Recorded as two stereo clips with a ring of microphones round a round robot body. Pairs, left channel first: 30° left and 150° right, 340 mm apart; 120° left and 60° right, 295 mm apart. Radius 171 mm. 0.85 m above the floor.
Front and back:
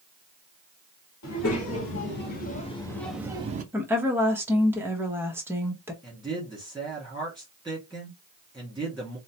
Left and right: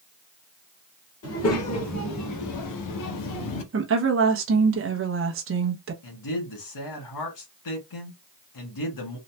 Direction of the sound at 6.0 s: 120° left.